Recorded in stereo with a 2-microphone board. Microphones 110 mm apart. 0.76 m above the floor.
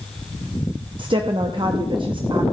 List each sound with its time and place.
1.0 s a woman speaking: 50° right (ahead or behind), 0.9 m